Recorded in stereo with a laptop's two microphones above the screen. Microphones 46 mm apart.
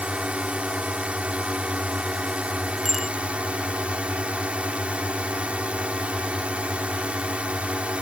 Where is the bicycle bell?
5° right (ahead or behind).